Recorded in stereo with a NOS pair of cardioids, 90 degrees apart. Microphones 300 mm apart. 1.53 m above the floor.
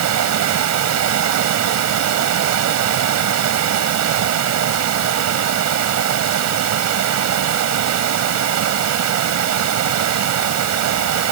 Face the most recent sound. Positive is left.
turn(degrees=-70)